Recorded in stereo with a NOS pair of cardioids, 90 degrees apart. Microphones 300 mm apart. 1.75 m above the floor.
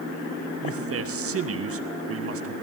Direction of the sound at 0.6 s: 50° right.